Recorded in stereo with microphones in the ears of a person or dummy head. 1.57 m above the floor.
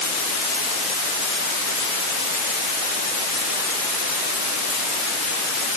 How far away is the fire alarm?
No fire alarm in this recording.